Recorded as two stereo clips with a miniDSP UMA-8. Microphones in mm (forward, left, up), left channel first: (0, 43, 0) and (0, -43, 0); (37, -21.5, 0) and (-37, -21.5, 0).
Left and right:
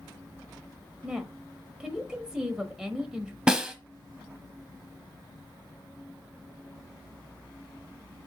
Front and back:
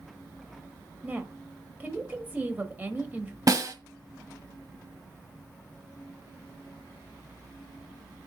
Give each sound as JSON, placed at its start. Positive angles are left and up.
{"t": 1.0, "sound": "a woman speaking", "azimuth_deg": -160, "distance_m": 1.4}
{"t": 3.5, "sound": "a snare drum", "azimuth_deg": -170, "distance_m": 1.2}